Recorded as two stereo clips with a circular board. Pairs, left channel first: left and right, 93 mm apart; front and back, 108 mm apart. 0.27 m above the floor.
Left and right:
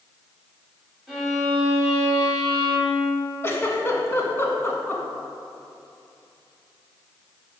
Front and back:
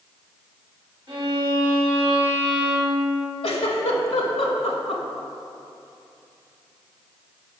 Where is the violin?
Straight behind, 1.3 m.